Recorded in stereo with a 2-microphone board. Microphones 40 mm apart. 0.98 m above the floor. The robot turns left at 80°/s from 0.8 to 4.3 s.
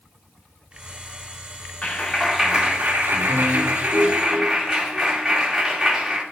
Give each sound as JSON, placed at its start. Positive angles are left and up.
{"t": 1.8, "sound": "a clap", "azimuth_deg": 35, "distance_m": 2.0}